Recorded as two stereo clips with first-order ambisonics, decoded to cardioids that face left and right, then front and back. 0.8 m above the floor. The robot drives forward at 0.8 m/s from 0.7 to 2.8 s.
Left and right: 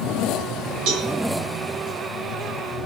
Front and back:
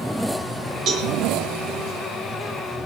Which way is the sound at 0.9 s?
125° right.